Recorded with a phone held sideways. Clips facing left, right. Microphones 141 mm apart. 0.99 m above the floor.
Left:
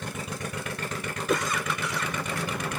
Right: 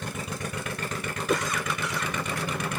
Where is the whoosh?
Centre (ahead or behind).